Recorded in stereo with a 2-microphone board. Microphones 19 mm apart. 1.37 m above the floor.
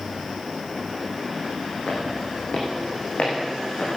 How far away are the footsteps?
About 4.5 m.